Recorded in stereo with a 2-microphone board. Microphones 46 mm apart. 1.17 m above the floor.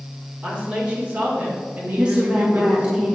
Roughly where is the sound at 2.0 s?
Right.